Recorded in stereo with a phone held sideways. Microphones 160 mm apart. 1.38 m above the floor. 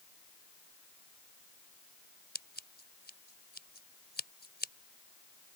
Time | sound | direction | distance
2.4 | scissors | 75° left (ahead or behind) | ?